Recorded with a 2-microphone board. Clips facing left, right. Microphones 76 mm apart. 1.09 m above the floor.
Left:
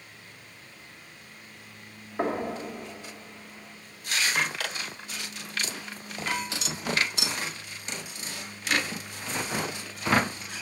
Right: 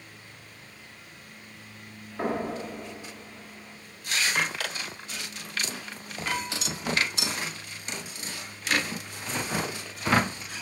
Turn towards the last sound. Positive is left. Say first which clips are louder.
# left 1 dB
turn(degrees=30)  # may be behind; listen again after turning